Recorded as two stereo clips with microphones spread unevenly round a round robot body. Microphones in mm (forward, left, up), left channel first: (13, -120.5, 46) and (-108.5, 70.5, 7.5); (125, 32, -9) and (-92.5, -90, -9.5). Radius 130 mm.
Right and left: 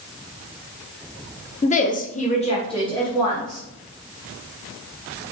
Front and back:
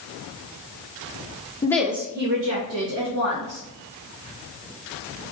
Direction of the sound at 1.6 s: 10° right.